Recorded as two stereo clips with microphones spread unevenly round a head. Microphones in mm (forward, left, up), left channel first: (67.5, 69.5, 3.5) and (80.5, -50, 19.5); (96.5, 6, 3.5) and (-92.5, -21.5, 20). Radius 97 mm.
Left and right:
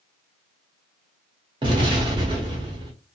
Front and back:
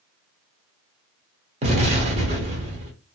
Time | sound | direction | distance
1.6 | an explosion | 130° right | 1.1 m